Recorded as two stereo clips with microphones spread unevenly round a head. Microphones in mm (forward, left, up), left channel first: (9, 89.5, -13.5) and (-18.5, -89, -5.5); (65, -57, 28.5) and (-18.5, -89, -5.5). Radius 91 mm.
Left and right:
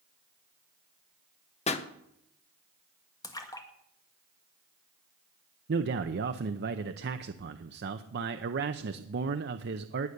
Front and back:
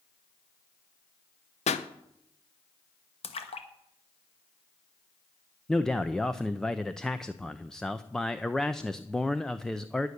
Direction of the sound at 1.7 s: 25° left.